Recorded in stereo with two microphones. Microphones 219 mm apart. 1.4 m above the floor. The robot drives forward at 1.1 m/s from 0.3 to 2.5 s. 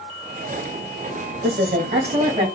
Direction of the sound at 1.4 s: 45° right (ahead or behind).